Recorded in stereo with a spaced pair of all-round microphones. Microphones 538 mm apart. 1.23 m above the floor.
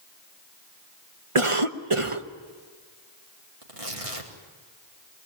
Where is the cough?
65° right (ahead or behind), 1.2 m.